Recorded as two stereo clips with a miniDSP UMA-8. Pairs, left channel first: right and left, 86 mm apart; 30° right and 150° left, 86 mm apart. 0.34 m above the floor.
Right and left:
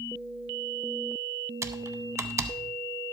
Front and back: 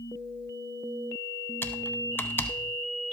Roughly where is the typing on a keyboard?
Ahead left.